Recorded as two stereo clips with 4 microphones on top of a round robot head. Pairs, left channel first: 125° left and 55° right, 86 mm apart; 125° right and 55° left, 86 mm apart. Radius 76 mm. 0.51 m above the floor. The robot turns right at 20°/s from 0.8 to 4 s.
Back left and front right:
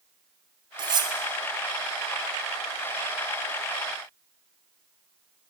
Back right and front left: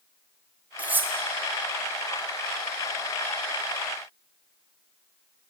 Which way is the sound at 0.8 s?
20° right.